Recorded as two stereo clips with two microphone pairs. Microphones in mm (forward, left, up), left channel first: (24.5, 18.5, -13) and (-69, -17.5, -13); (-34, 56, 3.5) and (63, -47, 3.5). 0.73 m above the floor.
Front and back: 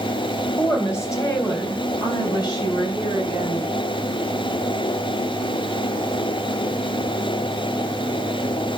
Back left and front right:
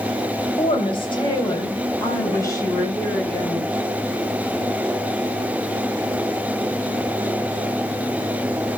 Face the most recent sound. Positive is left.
turn(degrees=55)